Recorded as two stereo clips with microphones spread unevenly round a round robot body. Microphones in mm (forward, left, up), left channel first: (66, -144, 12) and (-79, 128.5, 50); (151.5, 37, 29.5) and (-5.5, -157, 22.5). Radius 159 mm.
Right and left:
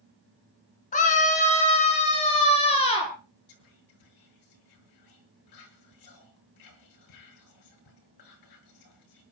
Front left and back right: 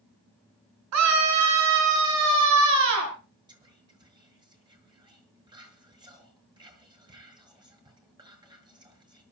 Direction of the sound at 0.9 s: 125° right.